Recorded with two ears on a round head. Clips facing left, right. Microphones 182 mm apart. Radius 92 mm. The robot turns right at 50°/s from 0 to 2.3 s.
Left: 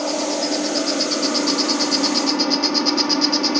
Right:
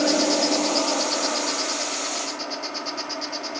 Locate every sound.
0.0 s an insect: 20° right; by 3.6 s 95° left